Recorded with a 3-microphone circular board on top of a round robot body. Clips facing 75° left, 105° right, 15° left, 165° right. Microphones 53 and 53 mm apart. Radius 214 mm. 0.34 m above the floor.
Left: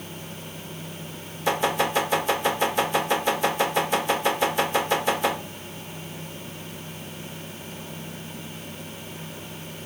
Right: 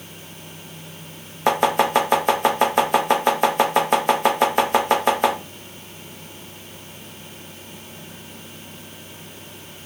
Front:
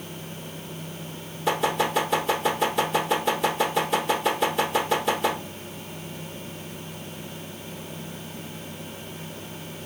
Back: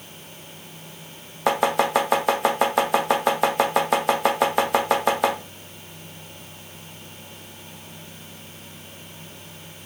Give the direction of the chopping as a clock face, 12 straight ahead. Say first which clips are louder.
Right 5 dB, back 4 dB; 5 o'clock.